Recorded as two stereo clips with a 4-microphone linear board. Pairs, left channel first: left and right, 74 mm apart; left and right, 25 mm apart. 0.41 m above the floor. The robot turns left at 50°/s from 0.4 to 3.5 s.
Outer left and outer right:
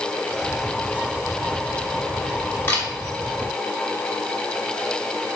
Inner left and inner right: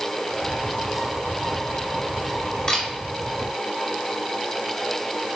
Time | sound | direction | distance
2.7 | a camera shutter | 30° left (ahead or behind) | 1.6 m